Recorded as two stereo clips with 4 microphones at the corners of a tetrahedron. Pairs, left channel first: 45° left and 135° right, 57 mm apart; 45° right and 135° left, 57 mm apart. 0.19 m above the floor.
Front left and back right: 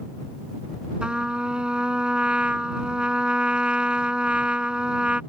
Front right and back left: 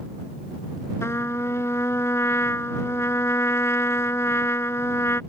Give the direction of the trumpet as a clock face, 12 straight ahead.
2 o'clock.